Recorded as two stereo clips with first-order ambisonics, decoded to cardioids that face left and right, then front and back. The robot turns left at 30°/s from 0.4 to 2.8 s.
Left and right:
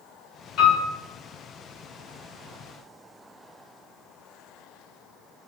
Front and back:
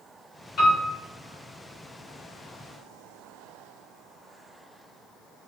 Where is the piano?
50° left, 1.3 m; by 0.9 s 40° left, 1.3 m.